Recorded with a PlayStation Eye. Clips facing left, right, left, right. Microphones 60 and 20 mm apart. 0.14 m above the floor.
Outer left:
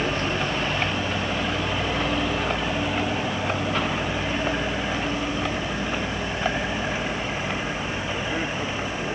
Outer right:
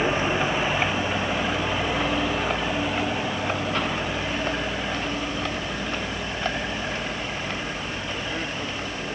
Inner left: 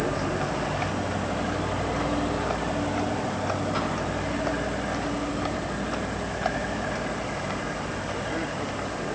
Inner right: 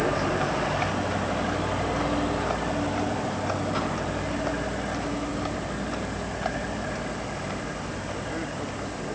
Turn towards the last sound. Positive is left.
turn(degrees=15)  # may be behind; listen again after turning